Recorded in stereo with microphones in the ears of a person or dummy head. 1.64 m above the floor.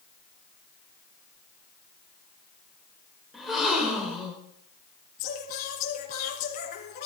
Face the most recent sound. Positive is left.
turn(degrees=50)  # may be behind; listen again after turning